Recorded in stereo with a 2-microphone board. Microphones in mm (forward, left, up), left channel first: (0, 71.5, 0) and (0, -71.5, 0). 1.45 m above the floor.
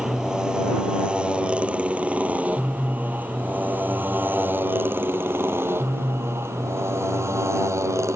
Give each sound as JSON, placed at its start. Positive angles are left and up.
{"t": 0.0, "sound": "a motorcycle", "side_deg": -5}